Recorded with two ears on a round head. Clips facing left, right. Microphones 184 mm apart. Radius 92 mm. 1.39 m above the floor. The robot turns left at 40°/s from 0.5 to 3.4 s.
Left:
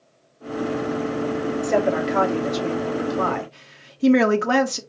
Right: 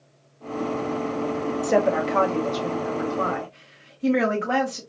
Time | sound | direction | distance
1.6 | a woman speaking | 170° right | 0.9 m